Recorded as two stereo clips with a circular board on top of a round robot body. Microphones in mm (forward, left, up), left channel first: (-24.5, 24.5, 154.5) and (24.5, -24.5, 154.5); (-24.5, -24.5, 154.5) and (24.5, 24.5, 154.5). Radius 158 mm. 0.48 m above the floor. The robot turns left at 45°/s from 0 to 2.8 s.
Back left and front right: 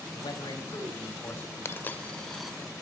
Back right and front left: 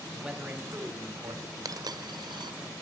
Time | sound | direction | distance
0.1 | a man speaking | 130° left | 4 m
1.6 | a dropped coin | 80° left | 1.1 m